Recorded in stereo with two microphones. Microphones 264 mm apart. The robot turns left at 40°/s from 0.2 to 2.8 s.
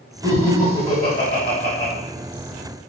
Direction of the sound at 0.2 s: 15° right (ahead or behind).